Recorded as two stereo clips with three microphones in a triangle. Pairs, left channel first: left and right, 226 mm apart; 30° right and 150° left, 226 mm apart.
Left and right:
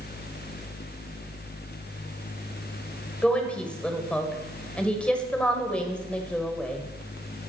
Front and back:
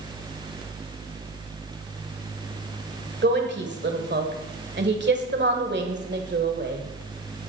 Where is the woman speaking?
175° left, 1.8 m.